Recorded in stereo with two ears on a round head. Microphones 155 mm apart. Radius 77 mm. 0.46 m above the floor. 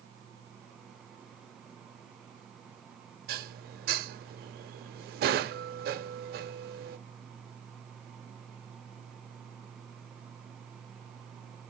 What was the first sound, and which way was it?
Dishes clattering, 65° right (ahead or behind).